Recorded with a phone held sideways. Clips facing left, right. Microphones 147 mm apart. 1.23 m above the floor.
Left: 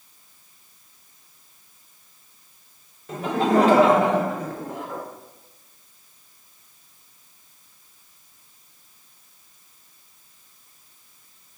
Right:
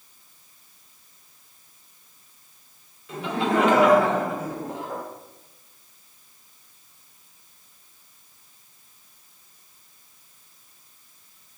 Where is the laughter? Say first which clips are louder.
Left 4 dB; 45° left (ahead or behind), 1.0 m; by 5.0 s 30° right (ahead or behind), 0.8 m.